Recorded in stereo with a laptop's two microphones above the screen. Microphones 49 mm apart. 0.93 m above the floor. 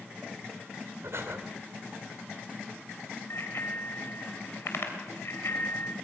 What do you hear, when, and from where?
1.0 s breathing: 65° right (ahead or behind), 2.5 m
3.3 s a bicycle bell: 60° left (ahead or behind), 3 m